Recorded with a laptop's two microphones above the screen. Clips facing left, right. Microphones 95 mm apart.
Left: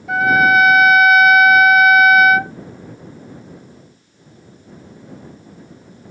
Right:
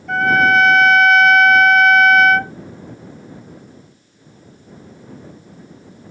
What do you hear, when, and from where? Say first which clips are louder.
0.1 s a trumpet: left 1 dB; 5° left (ahead or behind)